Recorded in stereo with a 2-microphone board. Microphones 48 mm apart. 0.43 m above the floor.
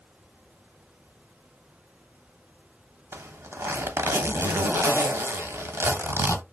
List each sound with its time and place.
3.1 s a zipper: 65° right (ahead or behind), 0.9 m